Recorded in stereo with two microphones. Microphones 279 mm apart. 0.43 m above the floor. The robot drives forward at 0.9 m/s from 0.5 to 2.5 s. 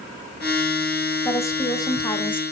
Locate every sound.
1.2 s a woman speaking: 10° left (ahead or behind), 1.9 m; by 2.4 s 20° left (ahead or behind), 1.1 m